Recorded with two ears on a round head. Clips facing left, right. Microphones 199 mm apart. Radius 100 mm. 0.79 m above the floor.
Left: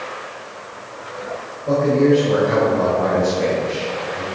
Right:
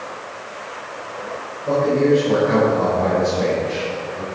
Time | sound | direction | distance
1.6 | a man speaking | centre (ahead or behind) | 4 m